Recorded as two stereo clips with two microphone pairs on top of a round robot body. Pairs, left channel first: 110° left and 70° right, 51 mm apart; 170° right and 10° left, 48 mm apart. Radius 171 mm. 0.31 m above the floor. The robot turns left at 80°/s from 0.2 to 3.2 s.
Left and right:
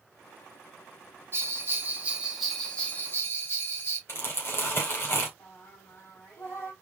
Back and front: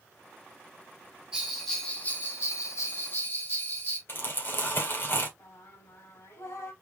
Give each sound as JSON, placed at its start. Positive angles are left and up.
{"t": 1.3, "sound": "a bell", "azimuth_deg": -60, "distance_m": 2.5}
{"t": 4.1, "sound": "crumpling", "azimuth_deg": 150, "distance_m": 2.5}
{"t": 5.4, "sound": "singing", "azimuth_deg": 155, "distance_m": 2.5}